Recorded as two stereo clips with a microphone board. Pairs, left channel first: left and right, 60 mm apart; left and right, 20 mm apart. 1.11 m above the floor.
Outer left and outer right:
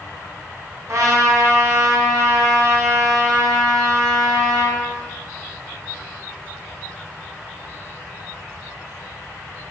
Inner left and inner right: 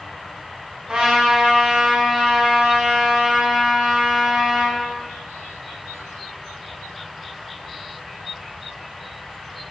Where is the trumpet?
50° right (ahead or behind), 5 m.